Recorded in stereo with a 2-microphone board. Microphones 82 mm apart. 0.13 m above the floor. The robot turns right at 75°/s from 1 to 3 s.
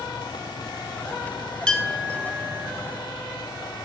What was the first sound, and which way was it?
A clink, 160° left.